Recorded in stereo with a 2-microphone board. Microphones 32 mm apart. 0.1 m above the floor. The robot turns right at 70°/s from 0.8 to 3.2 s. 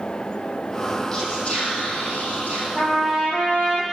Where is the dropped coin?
I don't hear a dropped coin.